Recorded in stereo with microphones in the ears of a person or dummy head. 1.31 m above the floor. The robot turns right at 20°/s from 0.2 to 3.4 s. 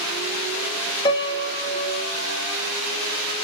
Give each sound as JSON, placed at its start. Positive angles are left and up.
{"t": 1.1, "sound": "a piano", "side_deg": 30, "distance_m": 1.0}